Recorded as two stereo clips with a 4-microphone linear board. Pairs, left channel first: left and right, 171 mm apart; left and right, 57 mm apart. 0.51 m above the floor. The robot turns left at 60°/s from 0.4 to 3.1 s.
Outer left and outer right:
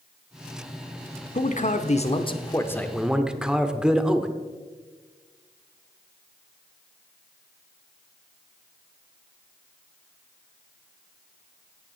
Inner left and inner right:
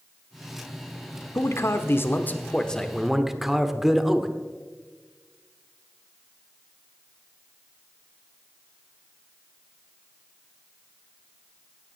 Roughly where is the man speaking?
Left.